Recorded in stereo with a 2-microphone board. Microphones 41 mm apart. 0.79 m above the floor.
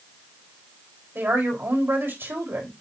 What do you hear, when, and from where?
1.1 s a woman speaking: 70° right (ahead or behind), 4 m